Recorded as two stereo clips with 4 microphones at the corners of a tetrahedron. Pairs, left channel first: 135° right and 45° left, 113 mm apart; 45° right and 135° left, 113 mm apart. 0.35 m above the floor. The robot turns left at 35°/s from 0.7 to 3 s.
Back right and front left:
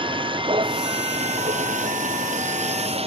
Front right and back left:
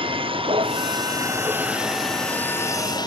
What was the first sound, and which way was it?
A vehicle, 90° left.